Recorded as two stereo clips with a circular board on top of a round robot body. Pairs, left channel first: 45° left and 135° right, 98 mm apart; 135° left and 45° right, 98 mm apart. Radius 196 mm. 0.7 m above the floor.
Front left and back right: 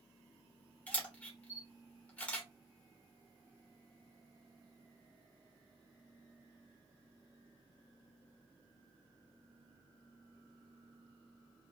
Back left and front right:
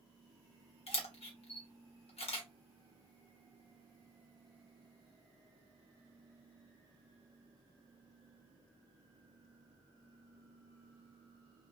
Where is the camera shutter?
120° left, 0.9 m.